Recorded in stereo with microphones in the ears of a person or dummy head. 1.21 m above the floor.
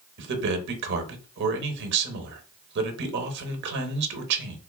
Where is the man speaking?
55° right (ahead or behind), 0.8 m.